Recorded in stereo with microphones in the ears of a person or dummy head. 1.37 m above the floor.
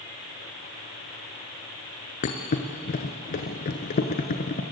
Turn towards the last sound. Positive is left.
turn(degrees=45)  # may be behind; listen again after turning